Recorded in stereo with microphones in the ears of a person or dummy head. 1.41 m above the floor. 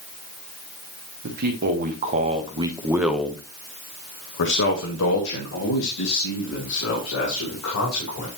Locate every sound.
1.2 s a man speaking: 50° right (ahead or behind), 1.7 m; by 8.3 s 85° left, 3.5 m